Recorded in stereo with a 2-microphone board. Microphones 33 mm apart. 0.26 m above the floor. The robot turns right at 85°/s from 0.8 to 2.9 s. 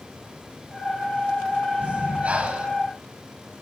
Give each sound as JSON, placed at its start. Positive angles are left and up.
{"t": 1.8, "sound": "breathing", "azimuth_deg": -115, "distance_m": 1.0}